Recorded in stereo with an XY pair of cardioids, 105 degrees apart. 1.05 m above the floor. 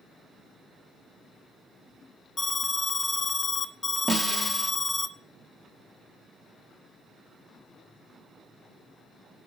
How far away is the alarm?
About 0.5 m.